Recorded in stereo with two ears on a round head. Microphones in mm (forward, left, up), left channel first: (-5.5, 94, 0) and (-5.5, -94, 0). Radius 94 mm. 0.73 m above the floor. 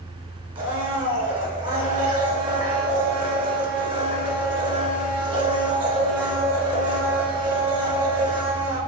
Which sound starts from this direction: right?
A blender, at 0.6 s.